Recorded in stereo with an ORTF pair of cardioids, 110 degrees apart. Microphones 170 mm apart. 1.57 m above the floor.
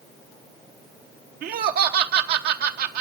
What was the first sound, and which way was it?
Laughter, 70° right.